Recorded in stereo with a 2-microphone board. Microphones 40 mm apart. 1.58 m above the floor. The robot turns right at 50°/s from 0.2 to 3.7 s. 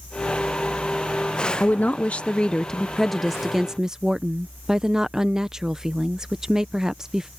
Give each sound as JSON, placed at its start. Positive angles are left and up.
{"t": 1.6, "sound": "a woman speaking", "azimuth_deg": 100}